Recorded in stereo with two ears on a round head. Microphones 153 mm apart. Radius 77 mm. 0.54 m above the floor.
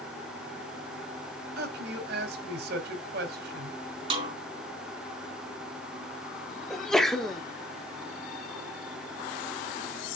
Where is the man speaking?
65° right (ahead or behind), 2 m.